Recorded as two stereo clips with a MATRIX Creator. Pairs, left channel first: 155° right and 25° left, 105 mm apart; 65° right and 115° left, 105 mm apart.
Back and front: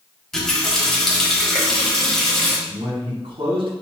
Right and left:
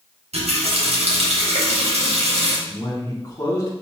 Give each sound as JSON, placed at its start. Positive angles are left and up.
{"t": 0.3, "sound": "a running tap", "azimuth_deg": 115, "distance_m": 1.1}
{"t": 2.7, "sound": "a man speaking", "azimuth_deg": -10, "distance_m": 1.5}